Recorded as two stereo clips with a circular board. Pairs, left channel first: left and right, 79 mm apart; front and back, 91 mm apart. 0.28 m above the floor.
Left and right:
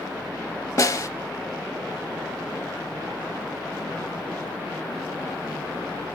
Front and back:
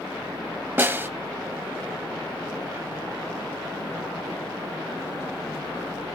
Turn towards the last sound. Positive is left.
turn(degrees=120)